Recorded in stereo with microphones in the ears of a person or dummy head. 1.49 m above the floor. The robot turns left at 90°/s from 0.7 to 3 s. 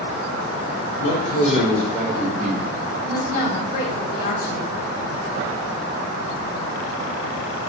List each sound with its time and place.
1.0 s a man speaking: 85° left, 0.8 m; by 2.6 s 60° right, 0.8 m
3.0 s a woman speaking: 50° left (ahead or behind), 0.8 m